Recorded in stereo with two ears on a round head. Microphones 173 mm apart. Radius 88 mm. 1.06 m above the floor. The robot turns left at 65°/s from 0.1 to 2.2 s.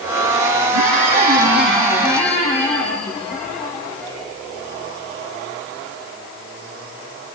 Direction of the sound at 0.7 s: 90° right.